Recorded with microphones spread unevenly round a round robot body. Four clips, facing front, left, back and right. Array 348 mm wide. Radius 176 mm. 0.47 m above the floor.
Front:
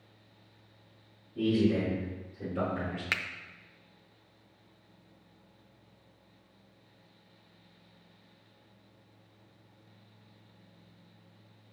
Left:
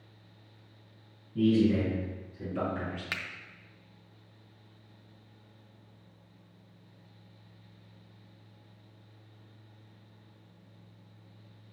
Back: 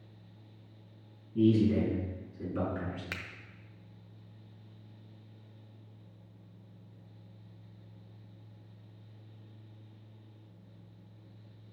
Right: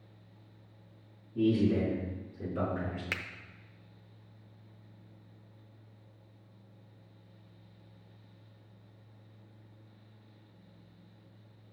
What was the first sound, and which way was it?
A man speaking, 160° left.